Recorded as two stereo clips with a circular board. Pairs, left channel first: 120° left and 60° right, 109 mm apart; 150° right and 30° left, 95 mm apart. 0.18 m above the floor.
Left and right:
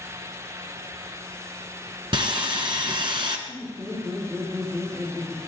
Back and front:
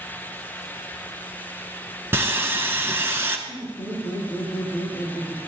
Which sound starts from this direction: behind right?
Laughter, at 3.5 s.